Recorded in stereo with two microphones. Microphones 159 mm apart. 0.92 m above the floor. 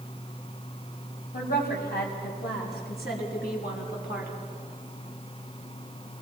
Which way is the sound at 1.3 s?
80° left.